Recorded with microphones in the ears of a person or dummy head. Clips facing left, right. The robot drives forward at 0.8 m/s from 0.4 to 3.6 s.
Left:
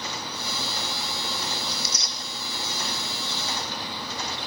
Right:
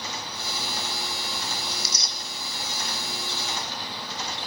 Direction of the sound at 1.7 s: 70° right (ahead or behind).